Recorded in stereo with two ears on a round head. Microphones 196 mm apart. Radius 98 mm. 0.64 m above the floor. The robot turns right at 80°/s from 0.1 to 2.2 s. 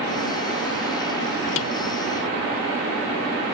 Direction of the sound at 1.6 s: 65° left (ahead or behind).